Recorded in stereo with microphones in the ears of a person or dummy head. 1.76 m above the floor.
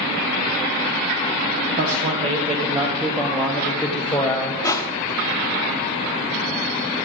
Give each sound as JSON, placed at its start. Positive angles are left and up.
{"t": 1.8, "sound": "a man speaking", "side_deg": -45, "distance_m": 1.4}
{"t": 4.6, "sound": "crushing", "side_deg": 20, "distance_m": 1.0}